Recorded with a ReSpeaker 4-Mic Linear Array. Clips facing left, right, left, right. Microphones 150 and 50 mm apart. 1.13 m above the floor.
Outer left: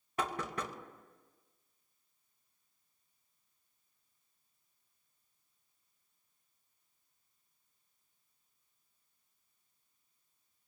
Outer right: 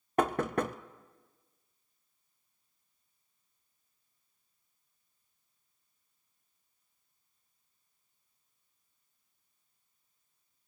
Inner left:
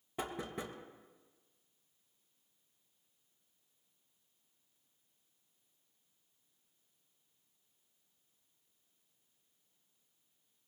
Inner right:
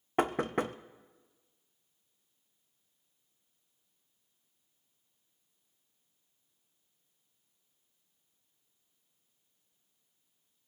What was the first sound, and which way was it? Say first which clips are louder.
Knocking: outer right 9 dB, inner right 11 dB; 55° right (ahead or behind).